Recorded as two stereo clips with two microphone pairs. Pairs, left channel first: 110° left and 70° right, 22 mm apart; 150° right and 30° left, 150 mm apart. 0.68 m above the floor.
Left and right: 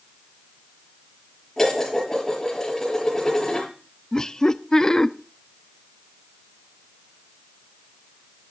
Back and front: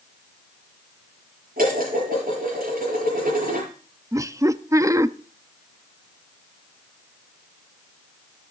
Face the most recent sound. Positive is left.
turn(degrees=80)